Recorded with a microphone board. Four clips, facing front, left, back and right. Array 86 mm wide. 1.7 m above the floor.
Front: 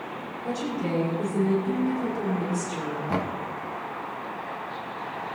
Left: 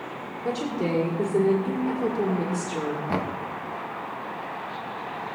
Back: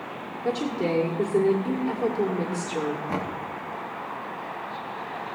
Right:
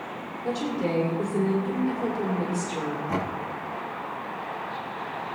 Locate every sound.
0.5 s a woman speaking: 140° left, 1.8 m
3.1 s knocking: 70° left, 1.0 m